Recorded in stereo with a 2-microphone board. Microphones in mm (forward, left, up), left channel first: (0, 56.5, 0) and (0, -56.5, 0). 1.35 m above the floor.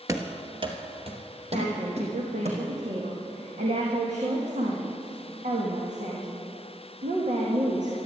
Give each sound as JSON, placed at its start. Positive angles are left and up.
{"t": 0.1, "sound": "running footsteps", "side_deg": -25, "distance_m": 1.4}
{"t": 1.5, "sound": "a woman speaking", "side_deg": -80, "distance_m": 2.0}